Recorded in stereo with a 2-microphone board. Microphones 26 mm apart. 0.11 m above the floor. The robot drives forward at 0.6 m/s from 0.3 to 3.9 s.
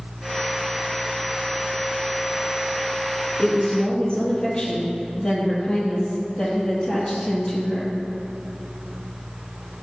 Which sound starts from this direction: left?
A woman speaking, at 3.4 s.